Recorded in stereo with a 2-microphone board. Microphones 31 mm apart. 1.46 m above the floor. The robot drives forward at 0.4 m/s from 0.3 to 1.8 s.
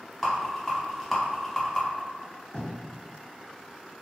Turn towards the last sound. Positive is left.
turn(degrees=25)  # may be behind; listen again after turning